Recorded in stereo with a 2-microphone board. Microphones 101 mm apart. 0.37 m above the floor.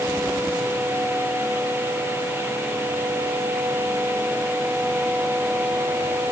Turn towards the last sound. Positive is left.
No sound to turn to.